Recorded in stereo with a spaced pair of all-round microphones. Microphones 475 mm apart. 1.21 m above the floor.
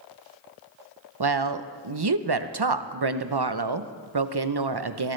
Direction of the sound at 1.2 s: 55° right (ahead or behind).